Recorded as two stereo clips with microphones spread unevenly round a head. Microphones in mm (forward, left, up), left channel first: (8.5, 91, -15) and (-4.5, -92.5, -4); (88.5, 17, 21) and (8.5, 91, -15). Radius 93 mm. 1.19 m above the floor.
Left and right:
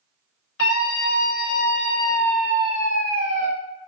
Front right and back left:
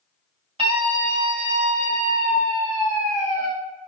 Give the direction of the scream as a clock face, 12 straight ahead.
8 o'clock.